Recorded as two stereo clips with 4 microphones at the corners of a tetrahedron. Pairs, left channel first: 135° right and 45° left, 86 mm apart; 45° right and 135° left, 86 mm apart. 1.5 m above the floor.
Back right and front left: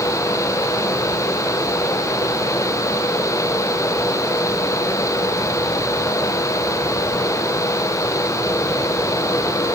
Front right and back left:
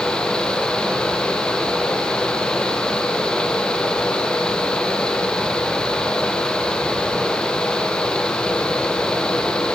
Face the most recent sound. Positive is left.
No sound to turn to.